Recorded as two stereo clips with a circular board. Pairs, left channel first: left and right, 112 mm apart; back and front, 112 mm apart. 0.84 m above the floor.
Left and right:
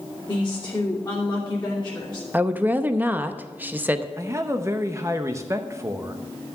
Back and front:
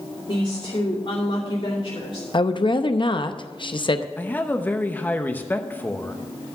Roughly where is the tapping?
No tapping in this recording.